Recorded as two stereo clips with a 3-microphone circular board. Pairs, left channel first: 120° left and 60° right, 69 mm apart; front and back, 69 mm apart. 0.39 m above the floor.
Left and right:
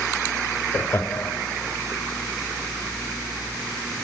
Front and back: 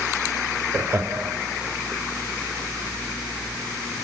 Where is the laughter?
155° left, 1.0 m.